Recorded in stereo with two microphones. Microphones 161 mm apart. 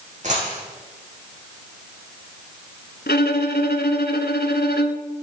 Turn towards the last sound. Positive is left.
turn(degrees=85)